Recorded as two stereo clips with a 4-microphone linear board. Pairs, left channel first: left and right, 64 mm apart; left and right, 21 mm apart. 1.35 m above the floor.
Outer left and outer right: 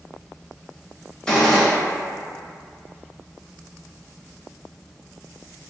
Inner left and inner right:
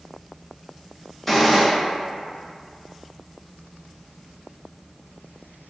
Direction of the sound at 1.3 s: 15° left (ahead or behind).